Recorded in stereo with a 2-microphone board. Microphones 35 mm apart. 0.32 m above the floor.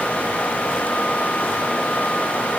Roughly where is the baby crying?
I don't hear a baby crying.